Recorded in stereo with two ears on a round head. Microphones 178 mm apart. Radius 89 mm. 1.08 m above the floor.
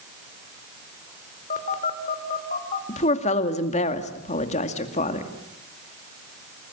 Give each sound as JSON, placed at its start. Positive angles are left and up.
{"t": 1.5, "sound": "a phone buzzing", "side_deg": 40, "distance_m": 3.0}
{"t": 2.9, "sound": "a woman speaking", "side_deg": 35, "distance_m": 2.0}